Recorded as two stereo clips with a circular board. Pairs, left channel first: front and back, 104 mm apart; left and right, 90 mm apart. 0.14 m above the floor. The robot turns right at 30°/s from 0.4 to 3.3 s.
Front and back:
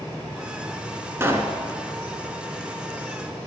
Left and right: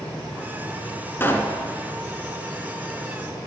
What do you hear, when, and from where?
1.2 s a pop: 130° left, 1.3 m; by 1.6 s 140° left, 1.3 m